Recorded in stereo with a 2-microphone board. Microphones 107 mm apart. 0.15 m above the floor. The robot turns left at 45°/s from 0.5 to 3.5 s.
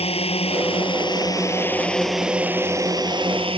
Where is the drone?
70° left; by 3.6 s 65° right.